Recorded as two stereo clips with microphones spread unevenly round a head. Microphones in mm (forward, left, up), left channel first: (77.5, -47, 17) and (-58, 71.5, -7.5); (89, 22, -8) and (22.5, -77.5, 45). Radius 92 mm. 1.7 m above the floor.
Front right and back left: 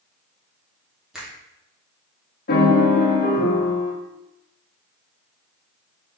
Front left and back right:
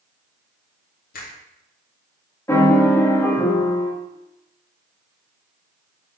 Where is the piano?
30° right, 1.8 m.